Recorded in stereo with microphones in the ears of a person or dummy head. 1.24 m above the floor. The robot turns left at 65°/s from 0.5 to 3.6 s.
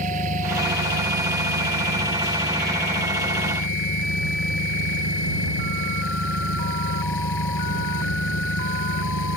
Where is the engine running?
45° right; by 9.4 s 115° left.